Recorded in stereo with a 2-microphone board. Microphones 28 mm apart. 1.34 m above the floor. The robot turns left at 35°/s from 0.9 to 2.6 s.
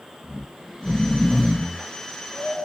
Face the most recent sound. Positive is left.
turn(degrees=135)